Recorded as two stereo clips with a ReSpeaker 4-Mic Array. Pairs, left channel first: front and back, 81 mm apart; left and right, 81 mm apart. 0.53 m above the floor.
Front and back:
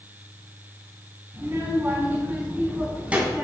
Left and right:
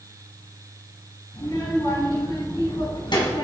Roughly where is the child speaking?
Behind left.